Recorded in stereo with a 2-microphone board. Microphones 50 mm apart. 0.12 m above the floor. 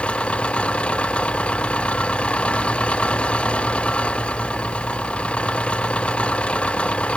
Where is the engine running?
20° left (ahead or behind).